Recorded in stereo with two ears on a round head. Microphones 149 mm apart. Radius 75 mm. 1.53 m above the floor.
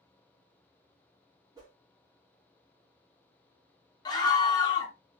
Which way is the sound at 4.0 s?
25° left (ahead or behind).